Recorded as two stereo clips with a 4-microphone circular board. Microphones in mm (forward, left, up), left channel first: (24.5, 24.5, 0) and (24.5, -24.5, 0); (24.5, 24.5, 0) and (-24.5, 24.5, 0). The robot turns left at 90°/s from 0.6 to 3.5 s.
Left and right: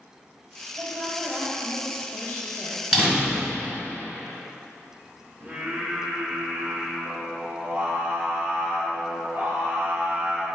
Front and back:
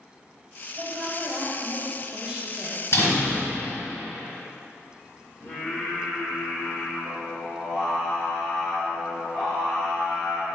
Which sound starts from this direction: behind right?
A woman speaking, at 0.8 s.